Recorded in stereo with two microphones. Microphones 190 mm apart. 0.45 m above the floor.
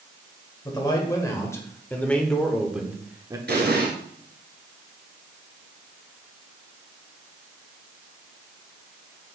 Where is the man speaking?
20° left (ahead or behind), 1.6 m; by 3.4 s 20° right (ahead or behind), 0.8 m.